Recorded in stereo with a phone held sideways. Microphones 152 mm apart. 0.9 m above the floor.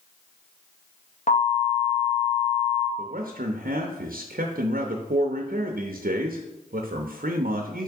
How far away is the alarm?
About 1.8 m.